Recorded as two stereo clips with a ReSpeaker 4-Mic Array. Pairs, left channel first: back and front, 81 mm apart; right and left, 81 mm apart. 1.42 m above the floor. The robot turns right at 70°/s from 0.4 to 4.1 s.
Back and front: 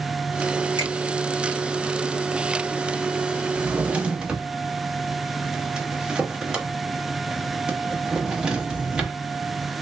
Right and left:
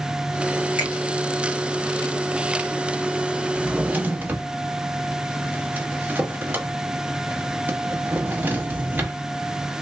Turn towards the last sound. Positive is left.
turn(degrees=60)